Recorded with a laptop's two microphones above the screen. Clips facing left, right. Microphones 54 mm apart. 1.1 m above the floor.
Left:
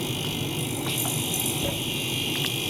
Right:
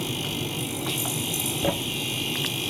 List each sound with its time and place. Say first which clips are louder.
1.6 s a thud: right 3 dB; 35° right (ahead or behind), 0.8 m